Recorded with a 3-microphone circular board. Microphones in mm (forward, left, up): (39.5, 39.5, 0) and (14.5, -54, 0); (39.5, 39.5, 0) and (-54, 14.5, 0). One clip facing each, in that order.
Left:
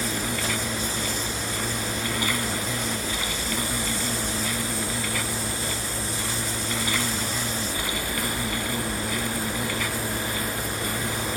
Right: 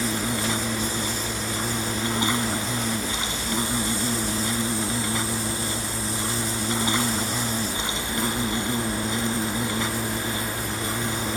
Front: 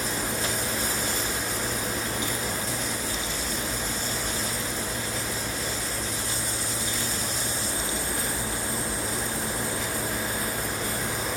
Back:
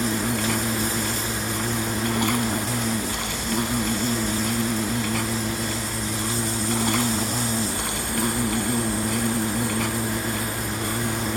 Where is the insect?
170° right.